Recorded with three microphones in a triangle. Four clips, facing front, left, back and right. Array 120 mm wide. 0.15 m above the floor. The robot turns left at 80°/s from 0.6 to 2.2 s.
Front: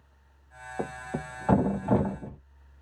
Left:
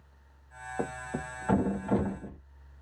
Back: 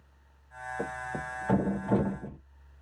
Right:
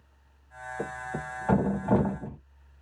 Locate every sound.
0.8 s a thud: 40° left, 1.5 m; by 2.4 s 70° right, 1.5 m